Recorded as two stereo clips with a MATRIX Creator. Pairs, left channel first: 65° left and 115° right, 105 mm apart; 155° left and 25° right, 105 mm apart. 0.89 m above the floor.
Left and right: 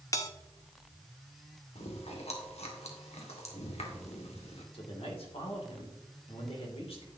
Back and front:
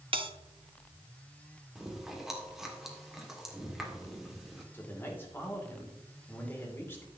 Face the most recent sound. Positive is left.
turn(degrees=90)